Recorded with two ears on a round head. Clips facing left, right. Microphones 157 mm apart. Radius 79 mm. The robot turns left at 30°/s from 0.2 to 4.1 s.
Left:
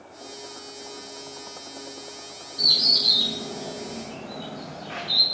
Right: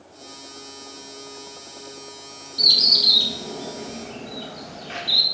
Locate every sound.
2.6 s a bird: 35° right (ahead or behind), 1.6 m; by 5.2 s 45° right (ahead or behind), 1.6 m